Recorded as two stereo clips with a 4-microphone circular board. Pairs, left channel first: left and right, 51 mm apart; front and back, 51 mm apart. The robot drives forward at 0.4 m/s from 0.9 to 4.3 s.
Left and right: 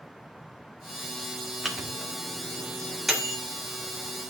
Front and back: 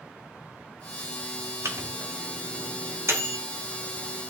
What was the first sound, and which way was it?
A microwave, straight behind.